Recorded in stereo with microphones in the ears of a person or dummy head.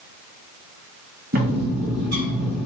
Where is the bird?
50° right (ahead or behind), 0.9 m.